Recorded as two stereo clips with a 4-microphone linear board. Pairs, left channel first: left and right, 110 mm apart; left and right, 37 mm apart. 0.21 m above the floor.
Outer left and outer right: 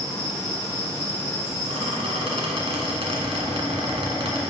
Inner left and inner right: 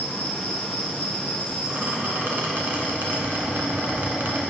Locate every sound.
0.0 s an insect: 25° left (ahead or behind), 2.5 m
1.7 s a squeak: 60° right (ahead or behind), 1.4 m